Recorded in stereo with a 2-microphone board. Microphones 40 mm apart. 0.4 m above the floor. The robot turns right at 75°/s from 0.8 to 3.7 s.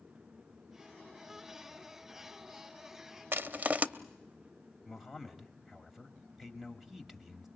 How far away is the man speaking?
About 2 m.